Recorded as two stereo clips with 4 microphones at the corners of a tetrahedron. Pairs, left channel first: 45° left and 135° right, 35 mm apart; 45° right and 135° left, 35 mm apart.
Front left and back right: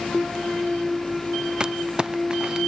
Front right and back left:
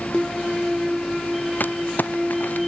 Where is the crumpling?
70° right.